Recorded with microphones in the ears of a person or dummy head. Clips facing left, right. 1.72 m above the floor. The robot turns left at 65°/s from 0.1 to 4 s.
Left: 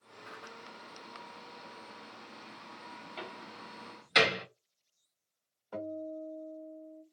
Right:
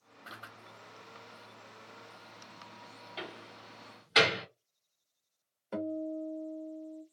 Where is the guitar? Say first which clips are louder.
Right 4 dB; 35° right (ahead or behind), 0.8 m.